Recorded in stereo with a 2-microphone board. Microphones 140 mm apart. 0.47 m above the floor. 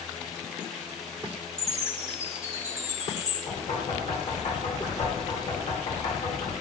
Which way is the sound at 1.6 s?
30° left (ahead or behind).